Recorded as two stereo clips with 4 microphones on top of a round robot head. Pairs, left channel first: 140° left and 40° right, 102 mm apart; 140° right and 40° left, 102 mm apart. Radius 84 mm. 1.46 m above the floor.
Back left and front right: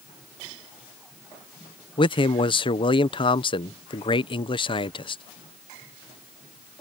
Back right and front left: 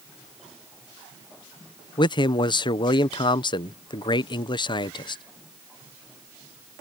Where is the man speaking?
175° left.